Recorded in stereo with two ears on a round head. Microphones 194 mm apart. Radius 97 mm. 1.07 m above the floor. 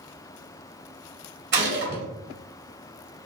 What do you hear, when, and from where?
1.5 s a gunshot: 55° right (ahead or behind), 2 m